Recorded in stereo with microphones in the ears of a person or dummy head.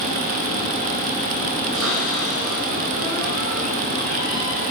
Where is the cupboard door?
80° right, 7 m.